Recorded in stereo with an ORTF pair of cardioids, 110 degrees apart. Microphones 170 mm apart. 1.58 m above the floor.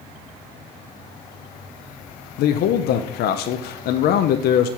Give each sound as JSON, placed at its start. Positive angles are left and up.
{"t": 2.4, "sound": "a man speaking", "azimuth_deg": 70, "distance_m": 0.6}